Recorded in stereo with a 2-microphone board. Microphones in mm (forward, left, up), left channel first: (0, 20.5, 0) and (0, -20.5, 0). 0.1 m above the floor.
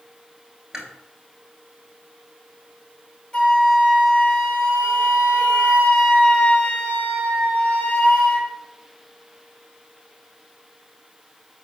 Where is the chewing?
15° right (ahead or behind), 1.0 m.